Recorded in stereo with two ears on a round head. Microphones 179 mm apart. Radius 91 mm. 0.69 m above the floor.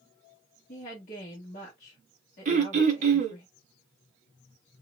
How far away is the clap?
I don't hear a clap.